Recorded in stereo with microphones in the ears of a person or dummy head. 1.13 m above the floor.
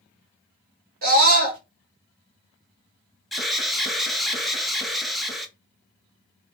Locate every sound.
1.0 s a scream: 45° right (ahead or behind), 1.4 m
3.3 s an alarm: centre (ahead or behind), 0.6 m